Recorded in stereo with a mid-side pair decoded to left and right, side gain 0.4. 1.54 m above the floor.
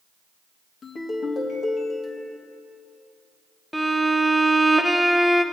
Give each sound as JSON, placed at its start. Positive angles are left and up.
{"t": 0.8, "sound": "a ringtone", "azimuth_deg": 55, "distance_m": 1.9}
{"t": 3.7, "sound": "a violin", "azimuth_deg": 10, "distance_m": 1.0}